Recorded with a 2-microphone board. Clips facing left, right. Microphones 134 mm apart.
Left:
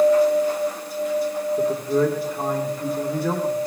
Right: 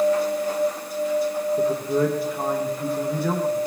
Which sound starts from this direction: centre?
A man speaking, at 1.6 s.